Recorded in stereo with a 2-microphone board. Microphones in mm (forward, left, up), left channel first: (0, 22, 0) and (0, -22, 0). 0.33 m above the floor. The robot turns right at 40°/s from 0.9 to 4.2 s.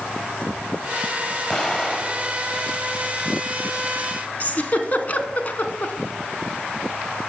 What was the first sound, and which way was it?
An explosion, 20° left (ahead or behind).